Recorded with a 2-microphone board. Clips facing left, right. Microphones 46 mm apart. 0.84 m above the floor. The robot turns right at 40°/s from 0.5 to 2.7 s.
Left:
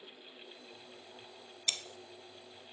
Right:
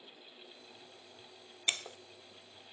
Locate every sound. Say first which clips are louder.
1.7 s breaking glass: right 4 dB; 25° right (ahead or behind), 1.0 m; by 2.0 s 35° right (ahead or behind), 1.0 m